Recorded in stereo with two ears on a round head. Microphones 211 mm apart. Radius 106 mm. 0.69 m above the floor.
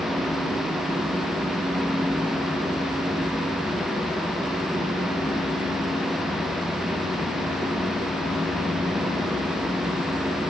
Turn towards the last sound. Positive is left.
No sound to turn to.